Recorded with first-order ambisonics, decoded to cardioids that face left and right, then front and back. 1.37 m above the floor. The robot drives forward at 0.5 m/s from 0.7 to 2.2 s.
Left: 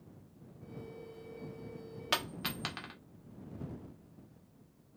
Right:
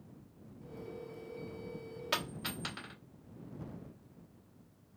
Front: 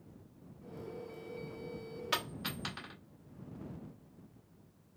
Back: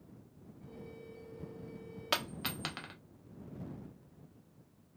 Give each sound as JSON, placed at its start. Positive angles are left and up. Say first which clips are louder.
{"t": 2.1, "sound": "a dropped coin", "louder": "left 2 dB, back 2 dB", "azimuth_deg": 145, "distance_m": 0.9}